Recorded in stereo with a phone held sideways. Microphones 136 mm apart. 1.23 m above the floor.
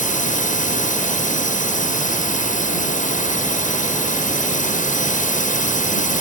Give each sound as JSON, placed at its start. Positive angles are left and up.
{"t": 0.0, "sound": "a drone", "side_deg": 75}